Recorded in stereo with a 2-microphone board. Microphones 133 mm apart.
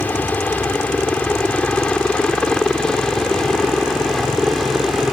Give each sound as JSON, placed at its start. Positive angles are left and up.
{"t": 0.0, "sound": "a helicopter", "side_deg": 15}